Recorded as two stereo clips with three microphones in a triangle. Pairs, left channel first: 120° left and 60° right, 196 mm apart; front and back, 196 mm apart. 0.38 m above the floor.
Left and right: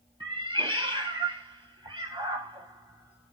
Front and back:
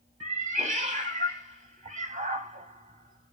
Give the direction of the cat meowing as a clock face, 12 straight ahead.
4 o'clock.